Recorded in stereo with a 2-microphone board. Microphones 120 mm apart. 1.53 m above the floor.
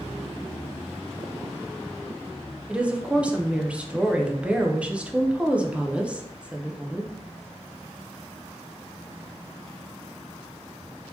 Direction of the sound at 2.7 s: 10° right (ahead or behind).